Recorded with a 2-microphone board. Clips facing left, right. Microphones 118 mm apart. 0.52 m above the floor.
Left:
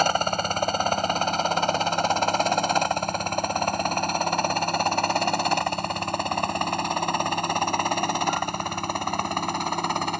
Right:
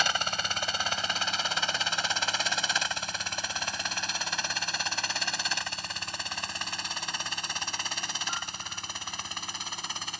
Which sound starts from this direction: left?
A helicopter, at 0.0 s.